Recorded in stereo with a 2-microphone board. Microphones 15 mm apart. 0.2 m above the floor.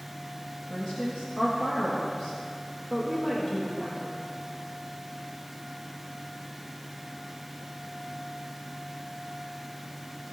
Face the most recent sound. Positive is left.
turn(degrees=45)  # may be behind; listen again after turning